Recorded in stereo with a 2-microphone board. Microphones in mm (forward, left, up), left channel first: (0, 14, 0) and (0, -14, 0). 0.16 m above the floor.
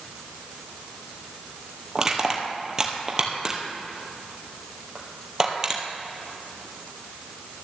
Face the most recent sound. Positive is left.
turn(degrees=-25)  # may be behind; listen again after turning